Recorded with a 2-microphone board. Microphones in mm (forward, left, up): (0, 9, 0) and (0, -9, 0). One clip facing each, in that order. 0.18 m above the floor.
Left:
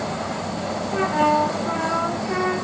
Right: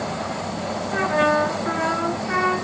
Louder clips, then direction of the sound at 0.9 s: Even; 60° right (ahead or behind).